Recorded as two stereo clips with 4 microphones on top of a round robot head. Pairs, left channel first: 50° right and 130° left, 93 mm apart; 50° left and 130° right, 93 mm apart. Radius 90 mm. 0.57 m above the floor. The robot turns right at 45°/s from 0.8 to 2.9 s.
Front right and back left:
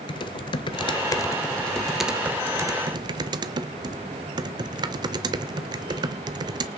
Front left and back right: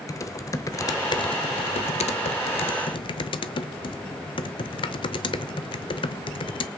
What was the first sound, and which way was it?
Typing on a keyboard, 10° right.